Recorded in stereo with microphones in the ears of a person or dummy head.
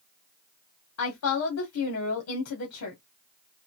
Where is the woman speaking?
80° left, 1.4 m.